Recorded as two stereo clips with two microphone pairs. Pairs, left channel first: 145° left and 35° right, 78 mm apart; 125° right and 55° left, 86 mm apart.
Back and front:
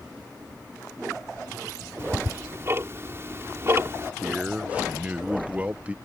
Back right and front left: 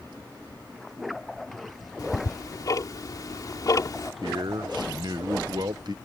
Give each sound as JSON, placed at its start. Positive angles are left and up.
{"t": 2.0, "sound": "ticking", "azimuth_deg": -85}
{"t": 4.2, "sound": "a man speaking", "azimuth_deg": 35}